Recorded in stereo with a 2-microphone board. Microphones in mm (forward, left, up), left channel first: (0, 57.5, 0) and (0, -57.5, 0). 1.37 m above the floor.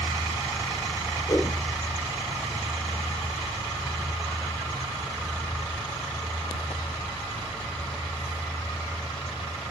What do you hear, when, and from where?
1.3 s a whoosh: 25° left (ahead or behind), 3 m